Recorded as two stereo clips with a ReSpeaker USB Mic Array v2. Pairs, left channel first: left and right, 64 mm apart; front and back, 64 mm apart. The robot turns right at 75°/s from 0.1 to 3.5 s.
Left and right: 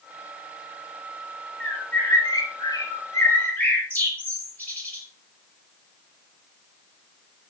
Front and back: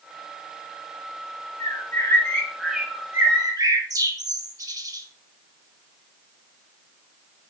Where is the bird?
15° left, 4.5 m; by 5.0 s 155° left, 4.5 m.